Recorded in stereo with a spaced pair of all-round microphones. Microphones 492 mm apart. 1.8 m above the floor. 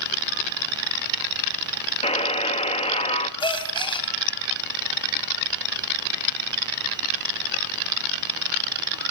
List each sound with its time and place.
2.0 s a buzzer: 10° left (ahead or behind), 1.3 m
3.4 s a gasp: 10° left (ahead or behind), 2.5 m